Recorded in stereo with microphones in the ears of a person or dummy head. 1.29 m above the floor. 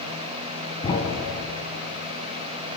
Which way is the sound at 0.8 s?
25° left (ahead or behind).